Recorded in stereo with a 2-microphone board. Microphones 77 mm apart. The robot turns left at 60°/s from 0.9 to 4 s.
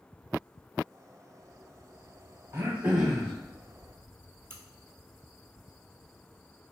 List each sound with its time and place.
2.5 s throat clearing: 140° right, 0.8 m; by 3.3 s 170° left, 0.8 m
4.5 s a crack: 35° right (ahead or behind), 0.6 m